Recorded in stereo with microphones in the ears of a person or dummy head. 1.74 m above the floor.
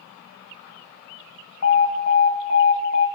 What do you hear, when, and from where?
1.6 s an alarm: 80° left, 0.9 m